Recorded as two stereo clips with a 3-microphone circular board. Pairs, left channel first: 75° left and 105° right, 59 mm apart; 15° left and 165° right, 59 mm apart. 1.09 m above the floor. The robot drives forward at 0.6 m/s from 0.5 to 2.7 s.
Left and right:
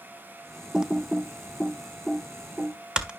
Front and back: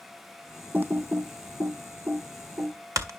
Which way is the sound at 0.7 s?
165° right.